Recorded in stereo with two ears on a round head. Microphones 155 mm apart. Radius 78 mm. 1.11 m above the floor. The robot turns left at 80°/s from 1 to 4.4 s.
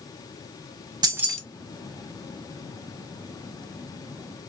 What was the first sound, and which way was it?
Keys jangling, 25° right (ahead or behind).